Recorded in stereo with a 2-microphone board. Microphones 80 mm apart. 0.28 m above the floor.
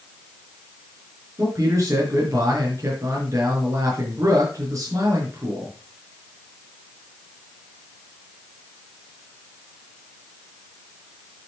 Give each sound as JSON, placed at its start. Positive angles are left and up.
{"t": 1.4, "sound": "a man speaking", "side_deg": -40, "distance_m": 4.5}